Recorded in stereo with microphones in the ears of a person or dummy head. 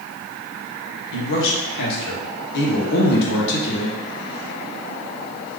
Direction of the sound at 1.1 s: 65° left (ahead or behind).